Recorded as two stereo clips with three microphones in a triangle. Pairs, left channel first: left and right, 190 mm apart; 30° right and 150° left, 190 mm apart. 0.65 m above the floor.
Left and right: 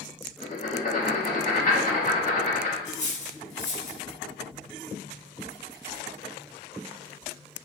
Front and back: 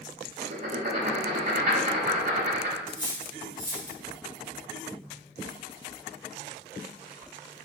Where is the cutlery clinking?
35° left, 1.0 m.